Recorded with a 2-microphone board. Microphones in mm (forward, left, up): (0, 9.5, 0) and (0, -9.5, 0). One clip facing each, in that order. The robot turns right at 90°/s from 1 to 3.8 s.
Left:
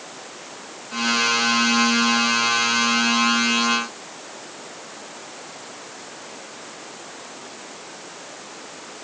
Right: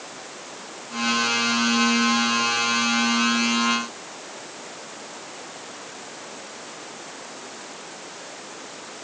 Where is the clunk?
I don't hear a clunk.